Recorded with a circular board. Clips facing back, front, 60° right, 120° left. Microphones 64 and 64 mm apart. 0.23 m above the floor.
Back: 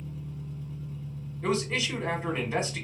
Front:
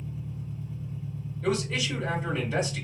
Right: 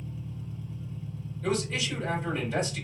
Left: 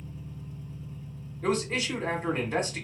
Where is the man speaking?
135° left, 1.3 m.